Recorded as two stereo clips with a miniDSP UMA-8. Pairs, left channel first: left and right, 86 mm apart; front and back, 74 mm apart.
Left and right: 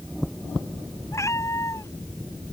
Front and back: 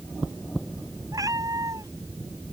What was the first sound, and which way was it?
A cat meowing, 145° left.